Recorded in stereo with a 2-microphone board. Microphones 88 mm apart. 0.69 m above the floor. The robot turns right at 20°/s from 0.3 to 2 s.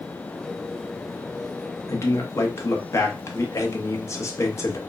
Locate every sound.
1.9 s a man speaking: 35° left (ahead or behind), 0.8 m